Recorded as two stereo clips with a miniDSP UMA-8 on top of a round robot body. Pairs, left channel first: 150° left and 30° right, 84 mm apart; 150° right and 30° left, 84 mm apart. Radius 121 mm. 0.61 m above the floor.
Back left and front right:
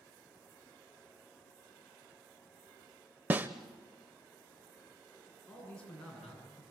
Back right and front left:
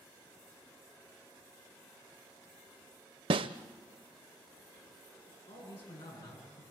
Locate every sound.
3.3 s a snare drum: 40° left, 0.5 m
5.5 s a man speaking: 130° right, 8.5 m